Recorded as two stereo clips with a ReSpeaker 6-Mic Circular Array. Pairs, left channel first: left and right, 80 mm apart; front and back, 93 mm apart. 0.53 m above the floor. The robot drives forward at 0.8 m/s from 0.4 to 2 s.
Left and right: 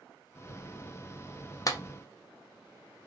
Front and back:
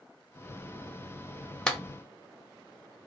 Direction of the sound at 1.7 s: 75° left.